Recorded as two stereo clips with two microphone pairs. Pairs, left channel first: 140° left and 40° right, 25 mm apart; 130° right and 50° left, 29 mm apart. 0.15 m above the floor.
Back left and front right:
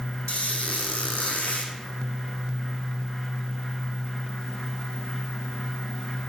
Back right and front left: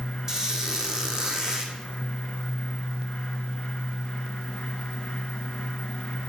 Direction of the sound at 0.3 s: 115° left.